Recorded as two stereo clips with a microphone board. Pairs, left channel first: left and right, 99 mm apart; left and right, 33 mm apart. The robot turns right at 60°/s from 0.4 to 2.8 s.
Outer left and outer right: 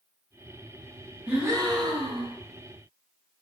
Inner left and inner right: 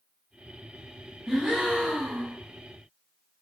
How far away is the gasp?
About 0.7 m.